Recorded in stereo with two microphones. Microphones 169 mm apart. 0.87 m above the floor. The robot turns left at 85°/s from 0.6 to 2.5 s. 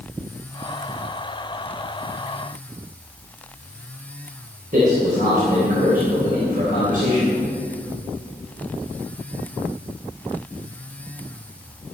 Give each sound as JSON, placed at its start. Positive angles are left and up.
{"t": 4.7, "sound": "a man speaking", "side_deg": -55, "distance_m": 3.5}